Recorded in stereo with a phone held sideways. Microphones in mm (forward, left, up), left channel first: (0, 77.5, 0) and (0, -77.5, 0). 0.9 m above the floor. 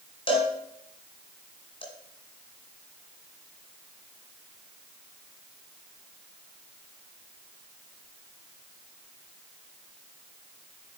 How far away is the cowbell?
About 1.9 m.